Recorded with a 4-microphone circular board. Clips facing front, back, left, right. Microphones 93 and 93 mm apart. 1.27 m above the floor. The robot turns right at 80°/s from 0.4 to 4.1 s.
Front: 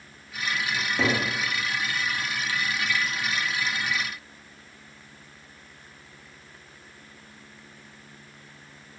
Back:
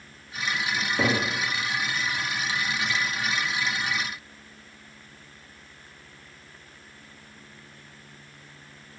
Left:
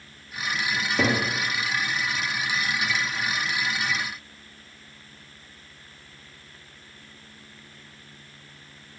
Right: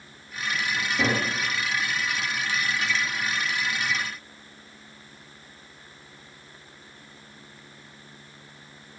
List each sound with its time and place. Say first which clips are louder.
0.7 s a cupboard door: back 1 dB, left 2 dB; 80° left, 0.6 m; by 1.2 s 115° left, 0.6 m